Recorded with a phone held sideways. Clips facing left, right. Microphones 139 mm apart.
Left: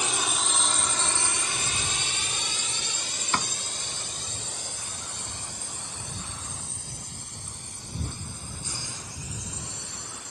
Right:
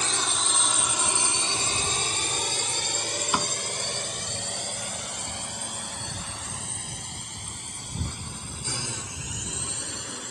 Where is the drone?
15° left (ahead or behind); by 10.3 s 85° right.